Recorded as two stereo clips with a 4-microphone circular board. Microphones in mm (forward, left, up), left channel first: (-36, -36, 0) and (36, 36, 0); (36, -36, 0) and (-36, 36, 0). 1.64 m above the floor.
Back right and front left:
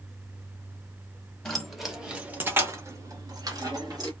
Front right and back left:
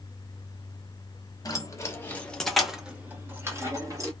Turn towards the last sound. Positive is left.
turn(degrees=85)